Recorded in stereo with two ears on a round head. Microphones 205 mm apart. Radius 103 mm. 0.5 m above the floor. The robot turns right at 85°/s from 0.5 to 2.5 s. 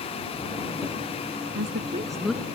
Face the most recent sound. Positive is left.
turn(degrees=15)